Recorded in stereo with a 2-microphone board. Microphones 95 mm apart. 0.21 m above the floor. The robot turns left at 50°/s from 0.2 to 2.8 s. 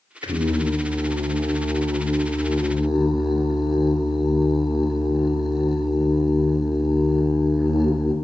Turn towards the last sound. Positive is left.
turn(degrees=-175)